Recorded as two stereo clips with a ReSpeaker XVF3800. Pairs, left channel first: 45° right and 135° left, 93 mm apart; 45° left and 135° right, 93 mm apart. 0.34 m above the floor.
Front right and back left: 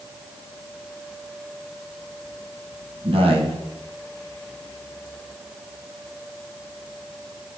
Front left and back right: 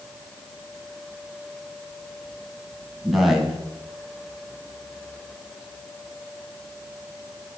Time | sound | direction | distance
3.0 | a man speaking | 135° left | 2.5 m